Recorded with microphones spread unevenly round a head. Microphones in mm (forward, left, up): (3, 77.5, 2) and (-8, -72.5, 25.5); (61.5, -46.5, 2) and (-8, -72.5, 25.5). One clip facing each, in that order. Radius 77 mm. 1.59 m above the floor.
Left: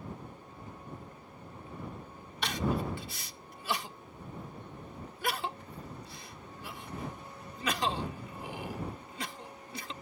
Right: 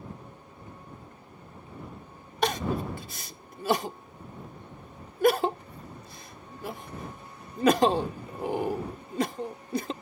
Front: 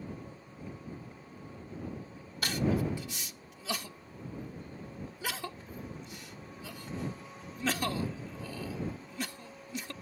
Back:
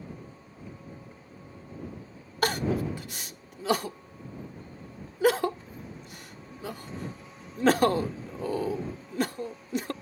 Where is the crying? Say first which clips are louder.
Right 4 dB, back 3 dB; 140° right.